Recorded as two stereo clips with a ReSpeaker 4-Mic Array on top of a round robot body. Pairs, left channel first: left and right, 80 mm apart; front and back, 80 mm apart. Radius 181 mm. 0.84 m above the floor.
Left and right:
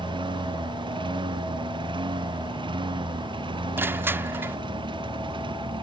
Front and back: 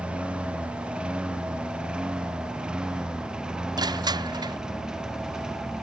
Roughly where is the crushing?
Behind right.